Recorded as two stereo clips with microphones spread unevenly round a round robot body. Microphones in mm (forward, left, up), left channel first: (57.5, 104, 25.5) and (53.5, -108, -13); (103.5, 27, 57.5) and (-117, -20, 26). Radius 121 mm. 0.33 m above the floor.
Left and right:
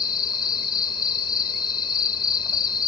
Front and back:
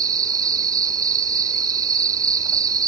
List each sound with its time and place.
0.0 s an insect: 160° left